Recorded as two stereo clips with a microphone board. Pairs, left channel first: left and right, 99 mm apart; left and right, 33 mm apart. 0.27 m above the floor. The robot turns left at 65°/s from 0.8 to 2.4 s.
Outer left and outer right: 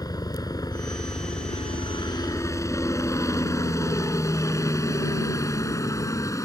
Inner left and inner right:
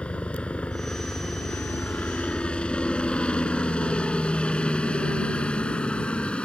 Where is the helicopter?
40° left (ahead or behind); by 6.5 s 30° left (ahead or behind).